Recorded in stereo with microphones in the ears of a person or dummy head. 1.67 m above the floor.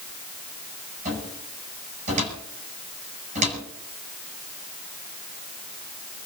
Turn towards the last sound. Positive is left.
turn(degrees=-40)  # may be behind; listen again after turning